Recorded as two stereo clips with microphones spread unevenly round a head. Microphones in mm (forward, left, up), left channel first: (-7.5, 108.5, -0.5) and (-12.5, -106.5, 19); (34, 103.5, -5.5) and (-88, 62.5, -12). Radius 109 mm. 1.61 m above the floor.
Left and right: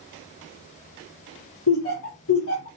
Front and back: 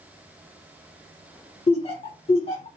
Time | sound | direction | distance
1.7 | laughter | 60° left | 0.9 m